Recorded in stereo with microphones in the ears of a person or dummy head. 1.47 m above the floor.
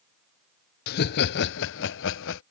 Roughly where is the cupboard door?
No cupboard door in this recording.